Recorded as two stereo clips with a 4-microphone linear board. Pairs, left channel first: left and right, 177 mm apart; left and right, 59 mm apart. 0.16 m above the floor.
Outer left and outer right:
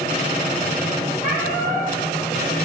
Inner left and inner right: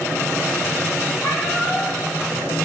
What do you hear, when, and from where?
1.2 s a cat meowing: 80° left, 2.5 m